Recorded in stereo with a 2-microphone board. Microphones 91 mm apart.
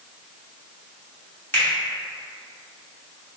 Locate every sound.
1.5 s a finger snap: 20° left (ahead or behind), 1.1 m